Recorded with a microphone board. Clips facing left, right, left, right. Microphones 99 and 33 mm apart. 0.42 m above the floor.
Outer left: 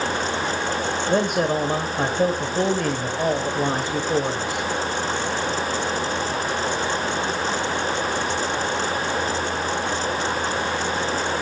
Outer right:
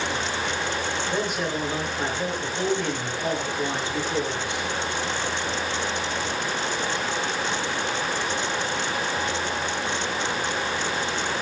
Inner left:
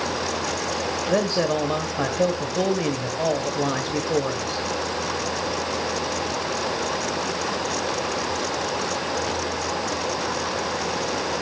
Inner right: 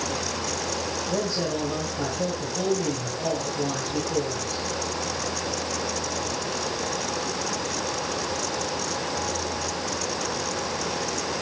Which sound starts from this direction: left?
A man speaking, at 1.1 s.